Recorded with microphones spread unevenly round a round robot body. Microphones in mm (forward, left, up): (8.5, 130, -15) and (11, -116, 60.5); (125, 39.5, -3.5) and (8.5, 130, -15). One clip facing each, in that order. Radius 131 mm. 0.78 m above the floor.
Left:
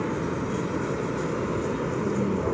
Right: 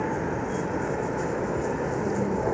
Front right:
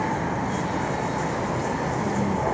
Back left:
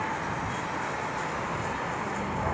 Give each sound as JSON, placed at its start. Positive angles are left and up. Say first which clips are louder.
{"t": 0.0, "sound": "a vehicle", "louder": "left 1 dB, front right 7 dB", "azimuth_deg": 10}